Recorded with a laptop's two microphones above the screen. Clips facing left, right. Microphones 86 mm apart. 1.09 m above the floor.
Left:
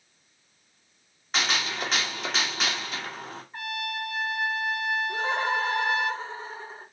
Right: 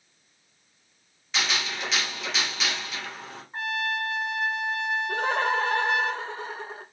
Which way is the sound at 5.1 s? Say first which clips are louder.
Right 4 dB; 65° right (ahead or behind).